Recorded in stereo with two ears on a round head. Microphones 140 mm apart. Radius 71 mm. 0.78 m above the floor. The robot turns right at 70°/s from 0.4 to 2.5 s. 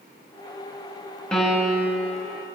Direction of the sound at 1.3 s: 170° left.